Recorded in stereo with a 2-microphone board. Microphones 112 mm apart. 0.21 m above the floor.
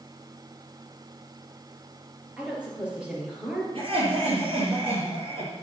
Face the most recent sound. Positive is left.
turn(degrees=-55)  # may be behind; listen again after turning